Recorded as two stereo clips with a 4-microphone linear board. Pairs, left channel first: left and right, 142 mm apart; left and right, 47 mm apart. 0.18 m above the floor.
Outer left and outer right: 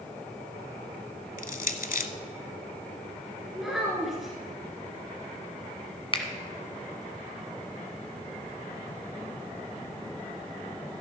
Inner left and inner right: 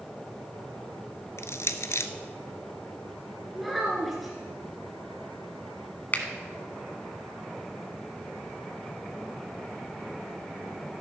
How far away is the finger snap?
About 1.1 m.